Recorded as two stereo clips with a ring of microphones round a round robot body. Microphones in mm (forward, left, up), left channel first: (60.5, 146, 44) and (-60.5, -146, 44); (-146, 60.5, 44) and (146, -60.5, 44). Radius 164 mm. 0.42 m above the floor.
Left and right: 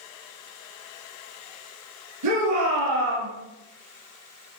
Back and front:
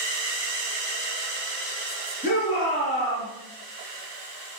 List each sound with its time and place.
2.2 s a shout: 140° right, 6 m